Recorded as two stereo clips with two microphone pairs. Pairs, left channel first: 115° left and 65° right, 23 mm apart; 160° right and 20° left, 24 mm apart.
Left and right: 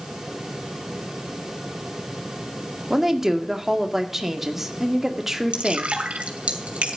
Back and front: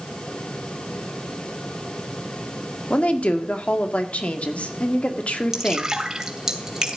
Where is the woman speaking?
135° right, 1.9 m.